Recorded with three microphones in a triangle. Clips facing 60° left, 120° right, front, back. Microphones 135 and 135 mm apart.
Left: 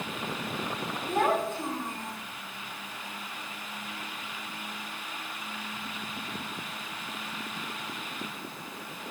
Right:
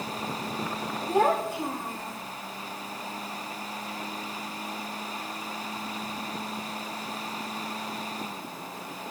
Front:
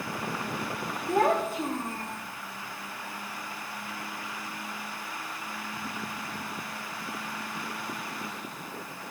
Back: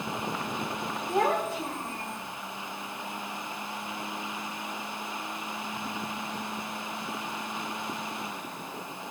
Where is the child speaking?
45° right, 8 m; by 2.2 s 40° right, 7.5 m.